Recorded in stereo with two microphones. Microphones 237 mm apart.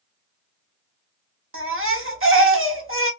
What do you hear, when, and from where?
1.5 s a baby crying: 60° right (ahead or behind), 0.9 m